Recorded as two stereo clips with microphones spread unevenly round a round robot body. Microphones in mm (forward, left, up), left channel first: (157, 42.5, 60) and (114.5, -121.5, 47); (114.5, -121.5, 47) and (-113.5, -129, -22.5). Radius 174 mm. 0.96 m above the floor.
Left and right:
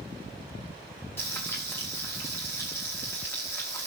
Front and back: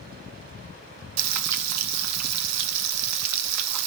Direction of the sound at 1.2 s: 155° left.